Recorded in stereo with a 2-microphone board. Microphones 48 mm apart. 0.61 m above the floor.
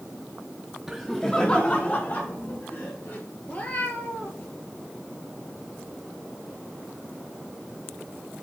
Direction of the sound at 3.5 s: 35° left (ahead or behind).